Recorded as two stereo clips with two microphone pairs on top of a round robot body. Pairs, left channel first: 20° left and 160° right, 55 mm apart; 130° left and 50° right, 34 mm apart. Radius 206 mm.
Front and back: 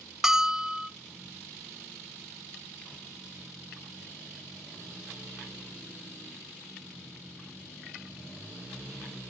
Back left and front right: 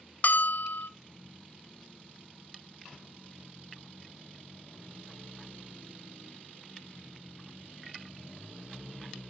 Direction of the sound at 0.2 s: 120° left.